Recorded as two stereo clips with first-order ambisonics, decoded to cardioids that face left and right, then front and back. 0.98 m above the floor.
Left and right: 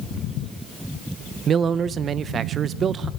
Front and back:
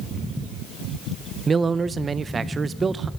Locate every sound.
1.5 s a man speaking: 125° right, 0.6 m